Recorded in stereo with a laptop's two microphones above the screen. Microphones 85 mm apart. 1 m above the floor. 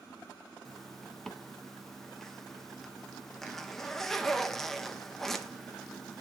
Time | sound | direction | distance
0.7 | a zipper | 5° left (ahead or behind) | 1.2 m